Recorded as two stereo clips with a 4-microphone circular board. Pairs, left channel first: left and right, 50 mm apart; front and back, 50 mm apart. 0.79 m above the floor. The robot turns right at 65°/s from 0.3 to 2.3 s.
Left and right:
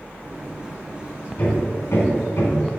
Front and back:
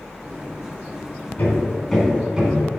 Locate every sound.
1.4 s hammering: 45° left, 3 m; by 2.6 s 105° left, 3 m